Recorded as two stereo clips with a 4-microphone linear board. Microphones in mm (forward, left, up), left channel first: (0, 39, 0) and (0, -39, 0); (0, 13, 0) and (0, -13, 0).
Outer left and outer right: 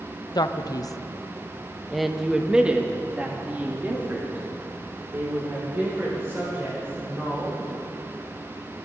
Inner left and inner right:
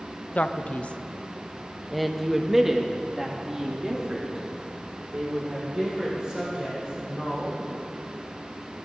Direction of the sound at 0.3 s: 60° left (ahead or behind).